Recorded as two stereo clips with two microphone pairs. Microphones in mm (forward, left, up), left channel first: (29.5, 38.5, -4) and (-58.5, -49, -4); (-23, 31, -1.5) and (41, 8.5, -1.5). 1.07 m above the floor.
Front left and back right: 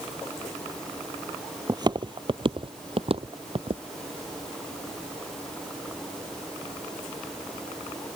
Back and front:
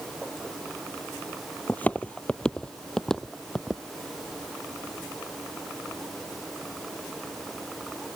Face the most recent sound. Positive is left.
turn(degrees=-110)